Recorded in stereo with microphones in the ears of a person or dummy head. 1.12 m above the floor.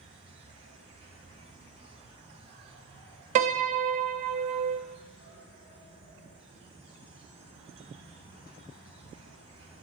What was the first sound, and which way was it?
An insect, 35° right (ahead or behind).